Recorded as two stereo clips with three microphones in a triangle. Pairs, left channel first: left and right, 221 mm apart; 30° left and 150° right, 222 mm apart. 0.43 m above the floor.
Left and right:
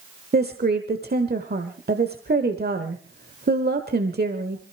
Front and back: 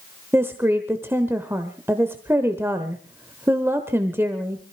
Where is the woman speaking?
75° right, 1.2 m.